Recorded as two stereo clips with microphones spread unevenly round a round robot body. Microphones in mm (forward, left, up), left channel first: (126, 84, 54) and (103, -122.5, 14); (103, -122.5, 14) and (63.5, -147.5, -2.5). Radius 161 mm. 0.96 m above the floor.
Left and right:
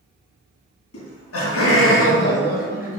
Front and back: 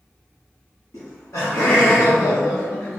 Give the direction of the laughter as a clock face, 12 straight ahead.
9 o'clock.